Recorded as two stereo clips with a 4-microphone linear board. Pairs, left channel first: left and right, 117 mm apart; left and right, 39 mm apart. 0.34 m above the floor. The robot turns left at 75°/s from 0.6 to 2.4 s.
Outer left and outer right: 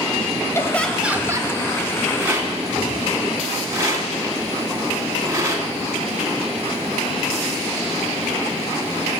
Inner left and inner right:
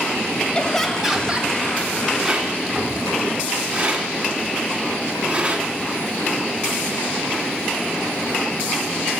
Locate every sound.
0.6 s laughter: 25° left, 1.6 m; by 1.5 s 45° right, 1.6 m
2.2 s a rattle: 10° right (ahead or behind), 2 m; by 5.7 s 25° right (ahead or behind), 2 m